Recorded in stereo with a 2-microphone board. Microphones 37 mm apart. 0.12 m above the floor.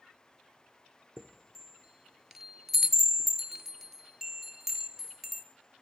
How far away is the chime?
About 0.6 m.